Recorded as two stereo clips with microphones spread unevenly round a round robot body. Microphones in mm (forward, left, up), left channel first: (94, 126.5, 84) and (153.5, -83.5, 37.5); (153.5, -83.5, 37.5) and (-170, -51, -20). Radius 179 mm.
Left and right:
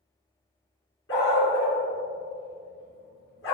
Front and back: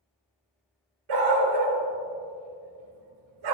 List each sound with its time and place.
1.1 s a dog barking: 160° left, 2.5 m